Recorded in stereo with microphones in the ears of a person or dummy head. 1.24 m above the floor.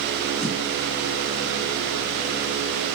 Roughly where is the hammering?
No hammering in this recording.